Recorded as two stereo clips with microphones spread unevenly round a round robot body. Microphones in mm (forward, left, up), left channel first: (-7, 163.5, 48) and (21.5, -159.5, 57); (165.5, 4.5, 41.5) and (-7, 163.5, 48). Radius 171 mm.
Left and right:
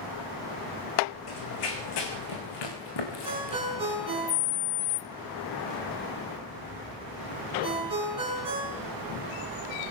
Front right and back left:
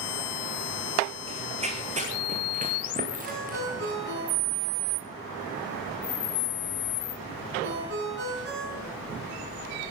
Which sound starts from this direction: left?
Running footsteps, at 1.3 s.